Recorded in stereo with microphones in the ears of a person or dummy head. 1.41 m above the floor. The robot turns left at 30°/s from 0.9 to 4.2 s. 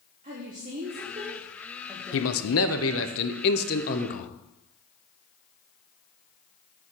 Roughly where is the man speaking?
Left.